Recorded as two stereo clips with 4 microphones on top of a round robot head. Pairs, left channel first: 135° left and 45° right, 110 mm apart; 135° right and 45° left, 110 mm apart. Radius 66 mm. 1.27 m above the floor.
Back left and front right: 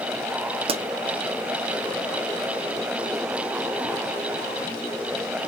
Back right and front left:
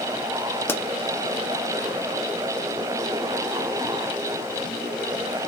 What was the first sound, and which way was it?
A pop, 65° right.